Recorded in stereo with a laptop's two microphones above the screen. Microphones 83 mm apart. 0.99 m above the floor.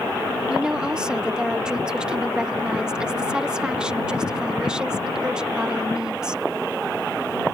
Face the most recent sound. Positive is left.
turn(degrees=-10)  # may be behind; listen again after turning